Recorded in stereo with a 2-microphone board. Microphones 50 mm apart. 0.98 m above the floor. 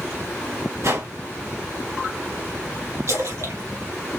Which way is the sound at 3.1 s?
75° right (ahead or behind).